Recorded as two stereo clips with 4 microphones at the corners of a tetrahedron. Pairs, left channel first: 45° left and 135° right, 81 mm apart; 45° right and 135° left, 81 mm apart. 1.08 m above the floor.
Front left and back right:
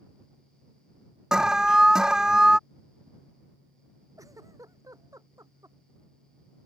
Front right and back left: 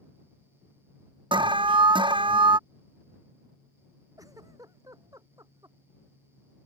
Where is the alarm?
140° left.